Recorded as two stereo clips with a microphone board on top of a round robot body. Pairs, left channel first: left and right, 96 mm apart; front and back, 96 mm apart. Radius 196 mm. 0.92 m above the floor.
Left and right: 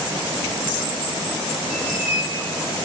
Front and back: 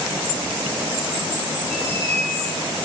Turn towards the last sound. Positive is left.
turn(degrees=180)